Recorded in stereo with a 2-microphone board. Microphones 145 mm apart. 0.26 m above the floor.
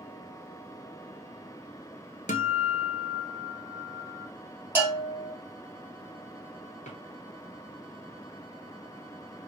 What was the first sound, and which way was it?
A guitar, 60° left (ahead or behind).